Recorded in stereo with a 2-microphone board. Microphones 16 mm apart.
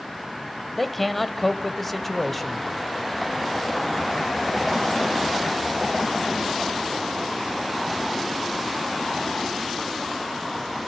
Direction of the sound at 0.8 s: 15° left (ahead or behind).